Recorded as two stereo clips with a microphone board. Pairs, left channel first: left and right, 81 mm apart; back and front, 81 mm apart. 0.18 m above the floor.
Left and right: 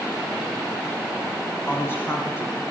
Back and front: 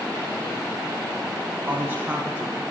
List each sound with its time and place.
1.7 s a woman speaking: 50° left, 2 m